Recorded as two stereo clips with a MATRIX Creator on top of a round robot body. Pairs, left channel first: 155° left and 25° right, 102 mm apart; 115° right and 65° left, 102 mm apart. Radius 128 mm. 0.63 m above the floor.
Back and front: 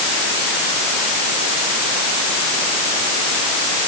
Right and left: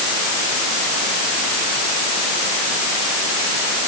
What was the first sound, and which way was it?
Only background noise.